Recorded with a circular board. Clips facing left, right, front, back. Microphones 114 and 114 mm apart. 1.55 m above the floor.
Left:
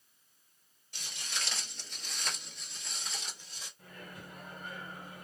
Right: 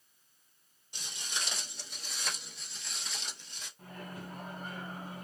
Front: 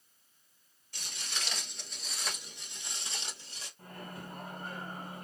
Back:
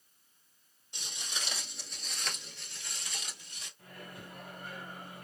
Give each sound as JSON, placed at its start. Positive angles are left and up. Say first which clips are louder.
{"t": 0.9, "sound": "footsteps", "louder": "right 1 dB, even", "azimuth_deg": -140, "distance_m": 1.7}
{"t": 3.8, "sound": "a microwave", "louder": "right 5 dB, front 3 dB", "azimuth_deg": -45, "distance_m": 1.9}